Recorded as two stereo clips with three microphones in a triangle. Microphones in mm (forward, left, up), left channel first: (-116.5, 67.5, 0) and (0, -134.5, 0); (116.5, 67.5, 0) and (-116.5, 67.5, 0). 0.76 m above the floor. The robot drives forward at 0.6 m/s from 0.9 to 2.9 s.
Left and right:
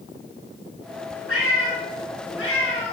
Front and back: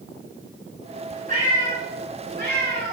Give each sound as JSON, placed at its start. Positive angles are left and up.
{"t": 1.3, "sound": "a cat meowing", "azimuth_deg": 130, "distance_m": 3.5}